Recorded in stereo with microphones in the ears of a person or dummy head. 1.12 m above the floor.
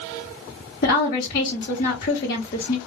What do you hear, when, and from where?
0.8 s a woman speaking: 50° left (ahead or behind), 1.0 m